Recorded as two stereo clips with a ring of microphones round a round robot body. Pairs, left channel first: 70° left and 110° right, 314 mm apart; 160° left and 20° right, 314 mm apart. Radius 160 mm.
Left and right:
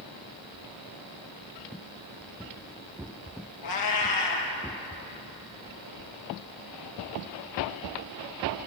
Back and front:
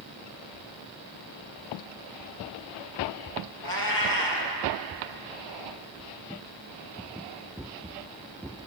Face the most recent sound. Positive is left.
turn(degrees=105)